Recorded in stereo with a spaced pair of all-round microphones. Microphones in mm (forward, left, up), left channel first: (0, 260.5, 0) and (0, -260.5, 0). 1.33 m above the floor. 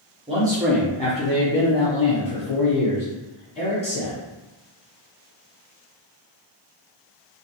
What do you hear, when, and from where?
0.3 s a man speaking: 10° right (ahead or behind), 0.8 m; by 4.1 s 55° left (ahead or behind), 1.5 m